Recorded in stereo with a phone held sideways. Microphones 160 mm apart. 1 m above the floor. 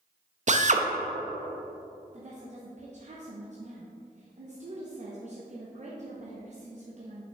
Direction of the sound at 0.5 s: 50° right (ahead or behind).